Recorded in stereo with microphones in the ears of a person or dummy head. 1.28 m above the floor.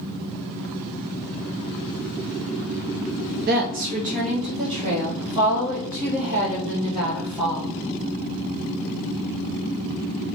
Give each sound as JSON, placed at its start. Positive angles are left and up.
{"t": 3.5, "sound": "a woman speaking", "side_deg": -40, "distance_m": 0.6}